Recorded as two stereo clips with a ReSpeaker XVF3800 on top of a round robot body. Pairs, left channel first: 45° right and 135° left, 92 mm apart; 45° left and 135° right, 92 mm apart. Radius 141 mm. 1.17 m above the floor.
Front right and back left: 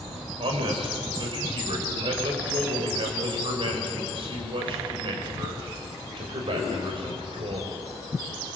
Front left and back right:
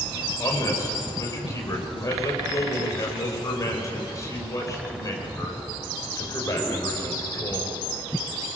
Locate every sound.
0.4 s a man speaking: 100° left, 4.5 m